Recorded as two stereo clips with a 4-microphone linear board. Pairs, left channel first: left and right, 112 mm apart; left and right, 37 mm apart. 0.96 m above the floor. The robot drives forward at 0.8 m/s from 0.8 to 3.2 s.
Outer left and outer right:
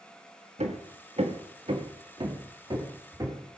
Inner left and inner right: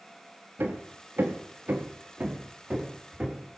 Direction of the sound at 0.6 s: 75° right (ahead or behind).